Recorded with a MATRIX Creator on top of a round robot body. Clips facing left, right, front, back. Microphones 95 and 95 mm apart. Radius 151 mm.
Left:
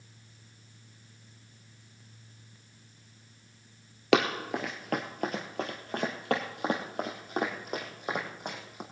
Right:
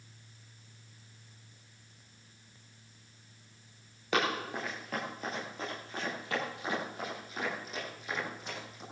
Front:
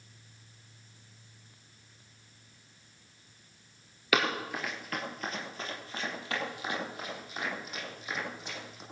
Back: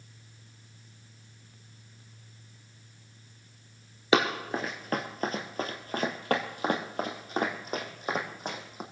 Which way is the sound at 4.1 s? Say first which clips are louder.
Left 6 dB, back 4 dB; 125° left.